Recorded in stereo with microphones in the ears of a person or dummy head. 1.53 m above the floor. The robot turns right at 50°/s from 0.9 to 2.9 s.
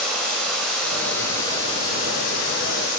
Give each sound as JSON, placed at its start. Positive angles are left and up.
{"t": 0.0, "sound": "running water", "azimuth_deg": 5, "distance_m": 2.0}